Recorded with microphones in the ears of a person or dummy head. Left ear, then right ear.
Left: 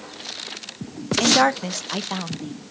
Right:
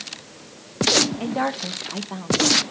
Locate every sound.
1.2 s a woman speaking: 70° left (ahead or behind), 0.9 m